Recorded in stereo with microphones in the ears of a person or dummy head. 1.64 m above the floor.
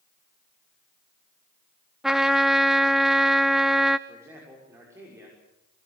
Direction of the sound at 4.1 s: 10° right (ahead or behind).